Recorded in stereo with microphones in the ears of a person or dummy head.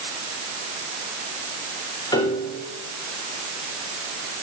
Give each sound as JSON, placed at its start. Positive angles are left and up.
{"t": 2.1, "sound": "a piano", "side_deg": 20, "distance_m": 4.5}